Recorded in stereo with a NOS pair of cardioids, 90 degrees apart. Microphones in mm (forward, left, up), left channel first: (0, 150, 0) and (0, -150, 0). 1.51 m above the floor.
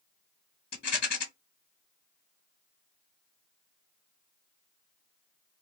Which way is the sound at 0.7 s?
35° left.